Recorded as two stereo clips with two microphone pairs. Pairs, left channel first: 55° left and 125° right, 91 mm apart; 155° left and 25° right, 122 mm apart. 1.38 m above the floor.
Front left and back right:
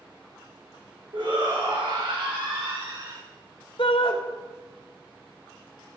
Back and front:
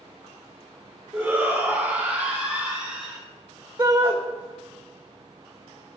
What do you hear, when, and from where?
1.1 s a shout: 95° right, 5.5 m; by 3.2 s 105° right, 7.5 m
3.8 s a shout: 35° left, 2 m